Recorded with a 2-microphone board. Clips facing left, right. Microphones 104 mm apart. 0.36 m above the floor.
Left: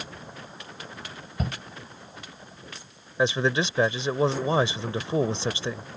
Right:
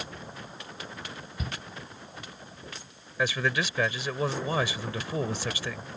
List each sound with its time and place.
1.4 s a shout: 55° left (ahead or behind)
3.2 s a man speaking: 25° left (ahead or behind)